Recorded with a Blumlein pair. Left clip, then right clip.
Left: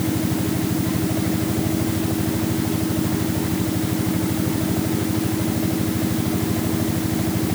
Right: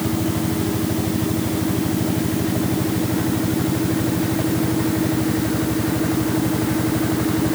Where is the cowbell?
No cowbell in this recording.